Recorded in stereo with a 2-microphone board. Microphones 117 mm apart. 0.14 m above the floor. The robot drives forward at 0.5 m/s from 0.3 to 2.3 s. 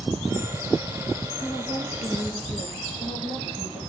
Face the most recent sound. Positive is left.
turn(degrees=65)  # may be behind; listen again after turning